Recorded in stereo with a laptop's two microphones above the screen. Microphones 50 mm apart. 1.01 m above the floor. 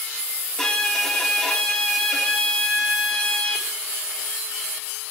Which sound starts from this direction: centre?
A violin, at 0.6 s.